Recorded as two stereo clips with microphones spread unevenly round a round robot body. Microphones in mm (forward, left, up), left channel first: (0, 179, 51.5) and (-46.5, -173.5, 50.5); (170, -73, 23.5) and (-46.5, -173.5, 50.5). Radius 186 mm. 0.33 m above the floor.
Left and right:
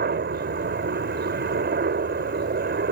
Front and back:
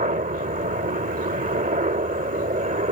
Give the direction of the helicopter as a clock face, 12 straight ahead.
4 o'clock.